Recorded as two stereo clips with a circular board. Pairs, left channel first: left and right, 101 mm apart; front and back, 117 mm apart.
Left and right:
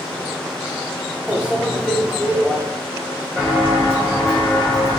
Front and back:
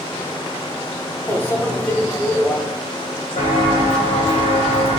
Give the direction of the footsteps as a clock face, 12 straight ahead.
12 o'clock.